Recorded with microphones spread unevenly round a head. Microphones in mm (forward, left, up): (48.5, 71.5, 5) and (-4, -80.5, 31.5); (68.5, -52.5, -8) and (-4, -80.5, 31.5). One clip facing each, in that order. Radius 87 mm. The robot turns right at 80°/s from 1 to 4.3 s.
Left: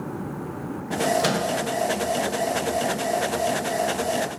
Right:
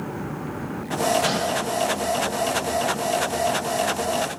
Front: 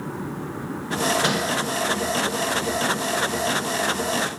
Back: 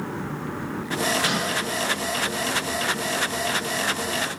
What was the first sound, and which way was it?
A microwave, 105° left.